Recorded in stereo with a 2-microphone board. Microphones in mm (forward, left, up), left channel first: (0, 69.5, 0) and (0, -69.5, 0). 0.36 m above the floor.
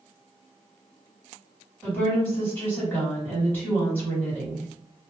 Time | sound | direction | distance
1.8 | a woman speaking | 15° left (ahead or behind) | 1.6 m